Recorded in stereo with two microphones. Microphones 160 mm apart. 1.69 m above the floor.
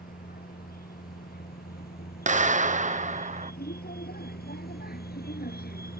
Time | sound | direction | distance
0.0 | a vehicle | 70° left (ahead or behind) | ?
2.3 | a clap | 50° right (ahead or behind) | ?